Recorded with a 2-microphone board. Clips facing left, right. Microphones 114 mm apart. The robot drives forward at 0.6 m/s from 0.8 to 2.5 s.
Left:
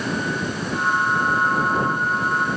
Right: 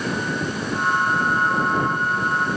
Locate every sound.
Only background noise.